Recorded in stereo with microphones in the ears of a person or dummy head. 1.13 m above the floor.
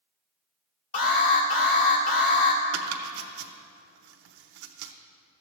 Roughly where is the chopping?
Right.